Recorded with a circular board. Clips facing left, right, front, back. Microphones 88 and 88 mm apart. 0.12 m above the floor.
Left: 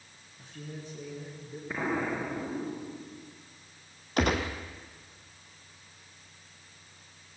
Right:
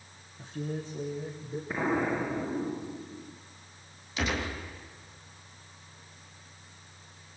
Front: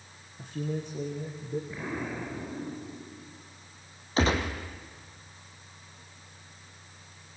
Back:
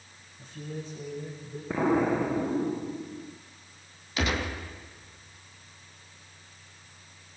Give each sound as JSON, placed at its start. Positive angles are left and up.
{"t": 0.4, "sound": "a man speaking", "azimuth_deg": -25, "distance_m": 6.0}
{"t": 1.7, "sound": "an explosion", "azimuth_deg": -170, "distance_m": 2.0}
{"t": 4.2, "sound": "a gunshot", "azimuth_deg": 55, "distance_m": 3.5}